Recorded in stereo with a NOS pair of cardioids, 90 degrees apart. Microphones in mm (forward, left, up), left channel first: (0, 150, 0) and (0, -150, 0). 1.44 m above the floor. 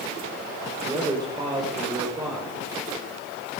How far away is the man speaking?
About 5 m.